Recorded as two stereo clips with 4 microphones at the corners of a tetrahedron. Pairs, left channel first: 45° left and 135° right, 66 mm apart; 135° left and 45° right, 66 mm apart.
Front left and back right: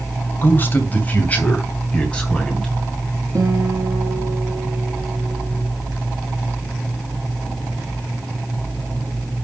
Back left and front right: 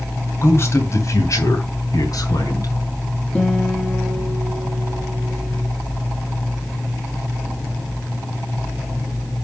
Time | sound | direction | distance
0.4 | a man speaking | 100° left | 2 m
3.4 | a guitar | 150° right | 3.5 m